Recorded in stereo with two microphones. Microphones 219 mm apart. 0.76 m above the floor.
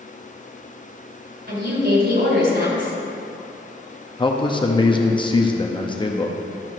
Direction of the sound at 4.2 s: 20° left (ahead or behind).